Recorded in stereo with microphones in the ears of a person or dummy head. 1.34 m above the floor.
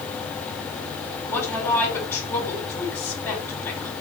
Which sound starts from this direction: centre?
A woman speaking, at 1.3 s.